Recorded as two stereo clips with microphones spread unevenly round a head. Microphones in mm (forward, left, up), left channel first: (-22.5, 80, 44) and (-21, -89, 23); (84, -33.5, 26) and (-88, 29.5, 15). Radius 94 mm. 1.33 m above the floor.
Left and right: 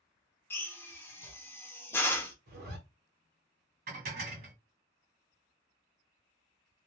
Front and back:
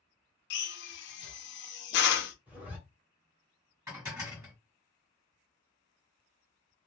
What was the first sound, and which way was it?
A drill, 10° left.